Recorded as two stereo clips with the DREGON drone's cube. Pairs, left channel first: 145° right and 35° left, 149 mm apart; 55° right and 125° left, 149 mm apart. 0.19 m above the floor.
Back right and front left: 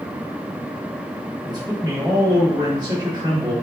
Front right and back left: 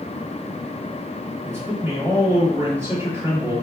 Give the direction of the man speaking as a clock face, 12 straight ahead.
10 o'clock.